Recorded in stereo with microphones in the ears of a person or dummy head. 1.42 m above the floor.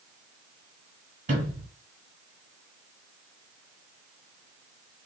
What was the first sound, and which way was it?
A sliding door, 35° right (ahead or behind).